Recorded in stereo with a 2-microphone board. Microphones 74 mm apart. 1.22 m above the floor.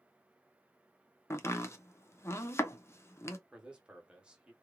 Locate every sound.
1.3 s chopping: 35° left (ahead or behind), 0.6 m
3.5 s a man speaking: 10° right (ahead or behind), 1.0 m